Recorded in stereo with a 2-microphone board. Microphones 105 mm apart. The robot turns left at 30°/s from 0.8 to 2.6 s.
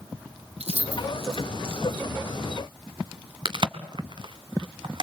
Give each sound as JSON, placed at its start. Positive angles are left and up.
{"t": 0.6, "sound": "keys jangling", "side_deg": -80, "distance_m": 5.0}
{"t": 3.5, "sound": "a crack", "side_deg": -50, "distance_m": 1.7}